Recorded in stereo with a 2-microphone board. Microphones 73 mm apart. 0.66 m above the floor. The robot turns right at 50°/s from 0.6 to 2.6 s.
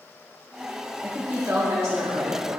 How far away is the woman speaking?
About 1.1 m.